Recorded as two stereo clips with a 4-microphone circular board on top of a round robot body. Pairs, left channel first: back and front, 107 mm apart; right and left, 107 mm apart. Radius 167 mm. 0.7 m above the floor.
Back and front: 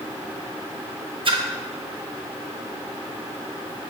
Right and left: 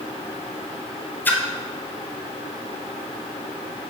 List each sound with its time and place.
1.2 s a splash: 20° right, 1.4 m